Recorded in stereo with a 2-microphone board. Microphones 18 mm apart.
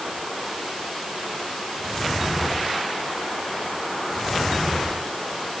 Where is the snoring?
I don't hear snoring.